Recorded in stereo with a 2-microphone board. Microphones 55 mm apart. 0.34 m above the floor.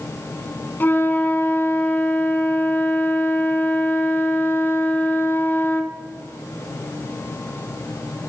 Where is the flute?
40° left (ahead or behind), 0.6 m.